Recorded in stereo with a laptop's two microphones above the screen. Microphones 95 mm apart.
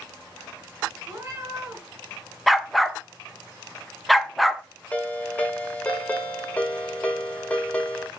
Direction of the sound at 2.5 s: Centre (ahead or behind).